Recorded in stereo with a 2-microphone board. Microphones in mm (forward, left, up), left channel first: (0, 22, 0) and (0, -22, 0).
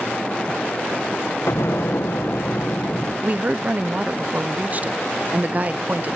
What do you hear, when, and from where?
1.5 s an explosion: 70° left (ahead or behind), 1.2 m
3.2 s a woman speaking: 40° right (ahead or behind), 0.6 m